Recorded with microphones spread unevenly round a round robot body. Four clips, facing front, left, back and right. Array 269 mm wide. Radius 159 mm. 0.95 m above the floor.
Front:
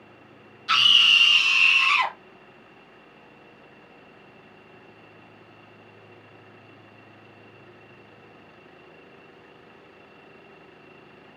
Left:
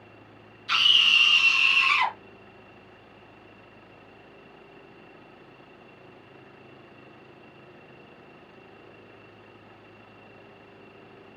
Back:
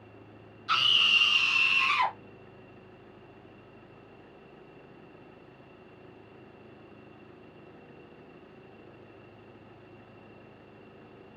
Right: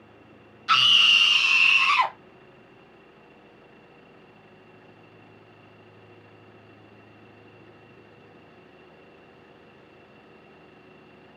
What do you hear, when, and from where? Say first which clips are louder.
0.7 s a scream: right 4 dB, front 5 dB; 70° right, 0.8 m; by 2.1 s 130° right, 0.9 m